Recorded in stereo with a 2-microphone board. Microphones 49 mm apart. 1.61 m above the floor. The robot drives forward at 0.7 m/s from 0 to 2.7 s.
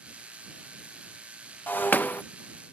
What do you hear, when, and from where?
1.7 s breaking glass: 40° left (ahead or behind); by 2.2 s 35° left (ahead or behind)